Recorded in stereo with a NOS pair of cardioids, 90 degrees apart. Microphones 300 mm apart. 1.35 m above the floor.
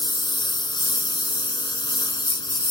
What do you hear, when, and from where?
0.0 s a lawn mower: 15° left